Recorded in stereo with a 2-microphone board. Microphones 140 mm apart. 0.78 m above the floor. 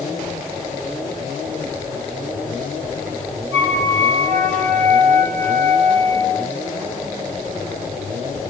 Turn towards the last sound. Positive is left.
turn(degrees=-60)  # may be behind; listen again after turning